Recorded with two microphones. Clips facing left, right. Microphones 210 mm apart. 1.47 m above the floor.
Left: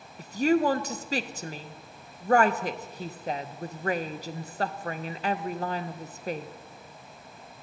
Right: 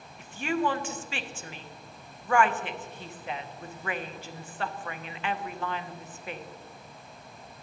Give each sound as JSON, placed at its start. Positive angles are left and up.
{"t": 0.2, "sound": "a woman speaking", "side_deg": 45, "distance_m": 0.6}